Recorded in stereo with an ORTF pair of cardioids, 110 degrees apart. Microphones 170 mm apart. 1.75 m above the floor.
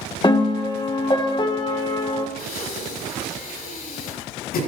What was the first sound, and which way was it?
A piano, 30° left.